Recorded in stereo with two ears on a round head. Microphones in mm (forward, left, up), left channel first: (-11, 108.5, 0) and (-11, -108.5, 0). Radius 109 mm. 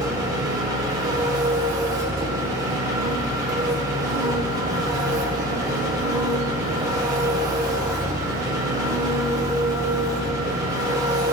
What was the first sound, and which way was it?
An engine running, 15° right (ahead or behind).